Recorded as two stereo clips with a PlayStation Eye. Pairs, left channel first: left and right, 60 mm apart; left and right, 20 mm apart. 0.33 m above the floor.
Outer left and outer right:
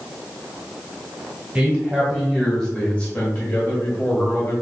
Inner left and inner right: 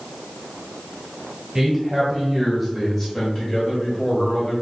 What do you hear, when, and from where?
1.6 s a man speaking: 20° right (ahead or behind), 1.2 m; by 4.5 s 50° left (ahead or behind), 1.6 m